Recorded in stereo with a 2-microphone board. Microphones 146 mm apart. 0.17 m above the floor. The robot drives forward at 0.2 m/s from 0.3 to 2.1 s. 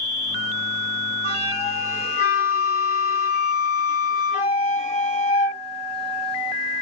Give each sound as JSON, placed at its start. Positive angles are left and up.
{"t": 1.2, "sound": "a flute", "side_deg": 45, "distance_m": 2.0}